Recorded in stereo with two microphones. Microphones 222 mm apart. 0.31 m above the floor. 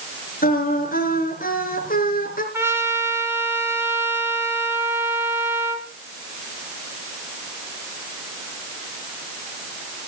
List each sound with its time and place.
0.4 s singing: 40° left (ahead or behind), 4.5 m
2.5 s a trumpet: 10° right (ahead or behind), 3 m